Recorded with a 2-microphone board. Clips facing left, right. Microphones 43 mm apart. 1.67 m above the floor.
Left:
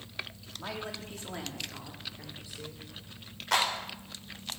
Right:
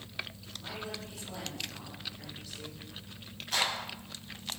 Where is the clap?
85° left, 5 m.